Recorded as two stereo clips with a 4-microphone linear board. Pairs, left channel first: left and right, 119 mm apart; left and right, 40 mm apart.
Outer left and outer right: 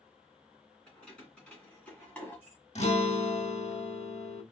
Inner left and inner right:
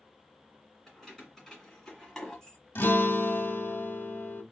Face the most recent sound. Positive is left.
turn(degrees=65)  # may be behind; listen again after turning